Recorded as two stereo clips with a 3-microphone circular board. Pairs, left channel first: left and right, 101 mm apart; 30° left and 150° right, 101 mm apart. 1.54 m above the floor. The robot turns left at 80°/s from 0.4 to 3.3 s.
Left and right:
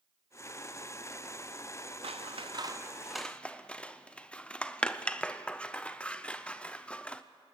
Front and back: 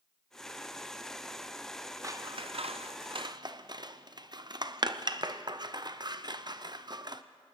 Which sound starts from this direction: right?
Scissors, at 2.0 s.